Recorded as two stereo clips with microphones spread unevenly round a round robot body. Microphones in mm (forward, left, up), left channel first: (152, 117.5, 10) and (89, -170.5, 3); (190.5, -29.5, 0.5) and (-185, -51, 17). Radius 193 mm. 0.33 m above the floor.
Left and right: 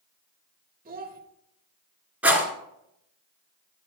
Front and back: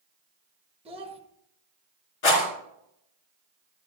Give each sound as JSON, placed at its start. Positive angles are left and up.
{"t": 0.8, "sound": "a child speaking", "azimuth_deg": -110, "distance_m": 0.9}
{"t": 2.2, "sound": "a rattle", "azimuth_deg": -15, "distance_m": 2.5}